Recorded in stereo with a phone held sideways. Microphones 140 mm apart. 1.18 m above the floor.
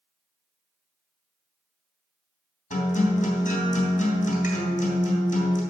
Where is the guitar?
70° left (ahead or behind), 3 m.